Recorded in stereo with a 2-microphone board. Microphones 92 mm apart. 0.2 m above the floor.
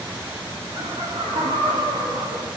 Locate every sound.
0.7 s laughter: 50° right (ahead or behind), 8.5 m; by 2.5 s 45° right (ahead or behind), 8 m